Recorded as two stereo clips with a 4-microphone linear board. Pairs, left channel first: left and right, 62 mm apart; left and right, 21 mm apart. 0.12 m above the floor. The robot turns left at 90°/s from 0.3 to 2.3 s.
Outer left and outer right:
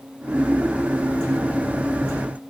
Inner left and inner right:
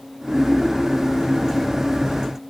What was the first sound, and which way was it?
Only background noise.